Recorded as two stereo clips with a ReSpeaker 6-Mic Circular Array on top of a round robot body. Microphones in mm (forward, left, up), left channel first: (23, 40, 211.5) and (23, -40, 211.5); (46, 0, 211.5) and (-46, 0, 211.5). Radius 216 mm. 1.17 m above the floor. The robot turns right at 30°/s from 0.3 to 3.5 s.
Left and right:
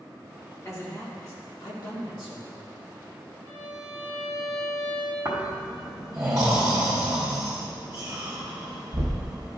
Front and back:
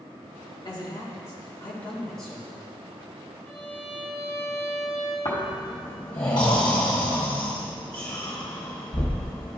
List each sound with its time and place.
0.7 s a man speaking: 35° left, 1.8 m; by 2.8 s 100° left, 1.8 m
3.4 s a violin: 55° left, 1.7 m; by 5.2 s 60° left, 1.7 m
5.2 s snoring: 40° right, 0.8 m